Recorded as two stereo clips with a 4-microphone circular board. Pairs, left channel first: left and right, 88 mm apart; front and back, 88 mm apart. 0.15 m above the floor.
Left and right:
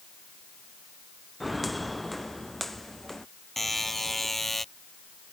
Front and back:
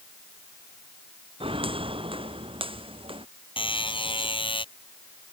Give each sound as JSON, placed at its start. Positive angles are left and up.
{"t": 1.4, "sound": "footsteps", "azimuth_deg": 180}
{"t": 3.6, "sound": "a buzzer", "azimuth_deg": 5}